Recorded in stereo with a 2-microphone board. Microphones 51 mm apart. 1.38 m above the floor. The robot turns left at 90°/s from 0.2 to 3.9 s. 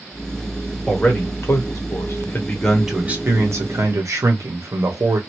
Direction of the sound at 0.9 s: 175° left.